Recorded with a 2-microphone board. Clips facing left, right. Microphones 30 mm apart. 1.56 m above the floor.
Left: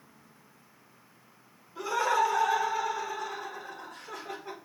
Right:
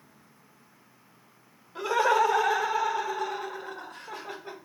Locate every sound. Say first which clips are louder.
1.8 s laughter: right 3 dB; 60° right (ahead or behind), 1.3 m; by 4.5 s 35° right (ahead or behind), 1.7 m